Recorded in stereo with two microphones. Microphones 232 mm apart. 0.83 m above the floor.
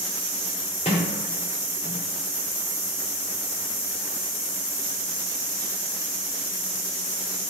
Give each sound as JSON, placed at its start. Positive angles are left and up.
{"t": 0.8, "sound": "a sliding door", "side_deg": 25, "distance_m": 1.8}